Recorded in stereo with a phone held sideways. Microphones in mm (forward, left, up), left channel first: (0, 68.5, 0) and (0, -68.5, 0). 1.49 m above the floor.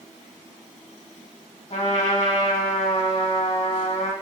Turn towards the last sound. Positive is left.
turn(degrees=50)  # may be behind; listen again after turning